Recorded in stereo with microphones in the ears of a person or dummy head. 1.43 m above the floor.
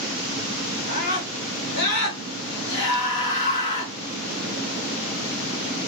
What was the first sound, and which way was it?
A scream, 65° left (ahead or behind).